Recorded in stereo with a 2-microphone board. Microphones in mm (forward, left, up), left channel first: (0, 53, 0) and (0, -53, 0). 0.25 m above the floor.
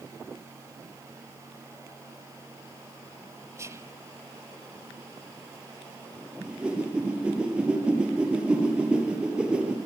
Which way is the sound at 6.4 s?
10° right (ahead or behind).